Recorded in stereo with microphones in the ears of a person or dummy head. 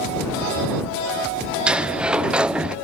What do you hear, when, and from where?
1.7 s a sliding door: 5° right (ahead or behind)